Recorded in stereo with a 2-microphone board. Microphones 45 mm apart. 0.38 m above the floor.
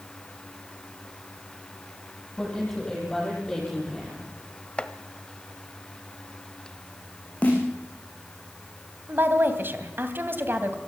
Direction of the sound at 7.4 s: 30° left (ahead or behind).